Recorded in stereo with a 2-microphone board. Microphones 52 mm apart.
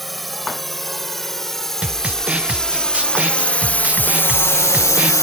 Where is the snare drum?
25° right (ahead or behind).